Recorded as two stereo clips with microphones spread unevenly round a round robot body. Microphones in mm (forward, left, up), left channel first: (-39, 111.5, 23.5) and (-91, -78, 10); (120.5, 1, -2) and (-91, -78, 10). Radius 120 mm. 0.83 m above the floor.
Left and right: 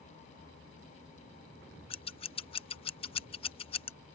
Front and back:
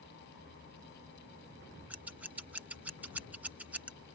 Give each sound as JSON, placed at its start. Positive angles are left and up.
{"t": 1.9, "sound": "scissors", "azimuth_deg": 120}